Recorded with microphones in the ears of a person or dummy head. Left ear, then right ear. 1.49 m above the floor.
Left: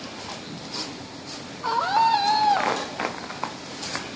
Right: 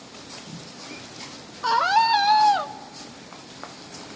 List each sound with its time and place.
1.6 s a scream: 70° right (ahead or behind), 0.9 m; by 2.7 s 20° right (ahead or behind), 0.8 m